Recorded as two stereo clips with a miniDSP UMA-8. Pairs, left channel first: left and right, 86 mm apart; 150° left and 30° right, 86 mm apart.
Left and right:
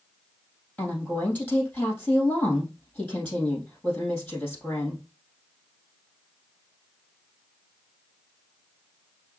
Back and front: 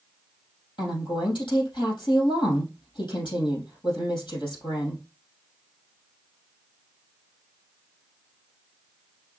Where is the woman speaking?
165° left, 3.5 m.